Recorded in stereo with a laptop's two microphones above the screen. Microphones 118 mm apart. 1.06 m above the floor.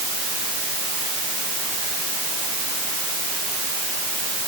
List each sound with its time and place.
Only background noise.